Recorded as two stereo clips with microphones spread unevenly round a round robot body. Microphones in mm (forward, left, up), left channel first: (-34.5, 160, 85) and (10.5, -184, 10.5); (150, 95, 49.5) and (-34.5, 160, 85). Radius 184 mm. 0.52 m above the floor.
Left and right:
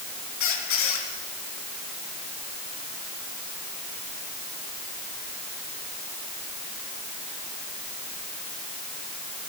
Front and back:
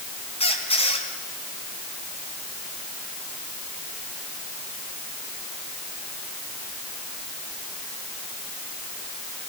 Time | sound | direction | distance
0.4 | a squeak | 40° left | 4.5 m